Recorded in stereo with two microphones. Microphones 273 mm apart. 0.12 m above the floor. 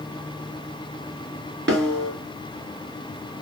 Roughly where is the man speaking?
No man speaking in this recording.